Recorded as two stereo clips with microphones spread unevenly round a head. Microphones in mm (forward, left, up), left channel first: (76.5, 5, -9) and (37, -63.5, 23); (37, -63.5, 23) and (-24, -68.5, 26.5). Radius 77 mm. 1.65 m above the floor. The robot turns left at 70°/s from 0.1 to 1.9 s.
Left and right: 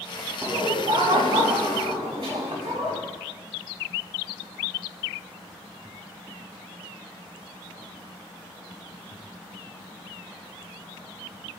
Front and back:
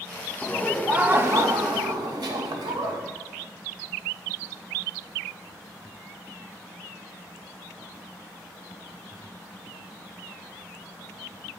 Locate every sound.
0.4 s laughter: 65° right, 1.0 m; by 3.0 s 170° right, 1.0 m